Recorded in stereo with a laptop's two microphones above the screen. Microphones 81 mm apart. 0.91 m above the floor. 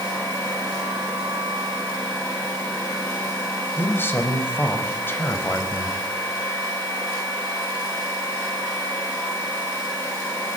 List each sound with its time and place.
3.8 s a man speaking: 25° left (ahead or behind), 4.5 m